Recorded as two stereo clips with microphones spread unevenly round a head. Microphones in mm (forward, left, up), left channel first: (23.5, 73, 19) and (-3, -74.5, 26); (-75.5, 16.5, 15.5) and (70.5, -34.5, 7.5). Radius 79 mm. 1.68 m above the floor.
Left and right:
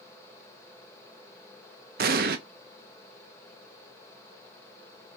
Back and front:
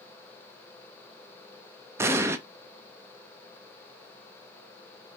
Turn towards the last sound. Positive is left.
turn(degrees=-95)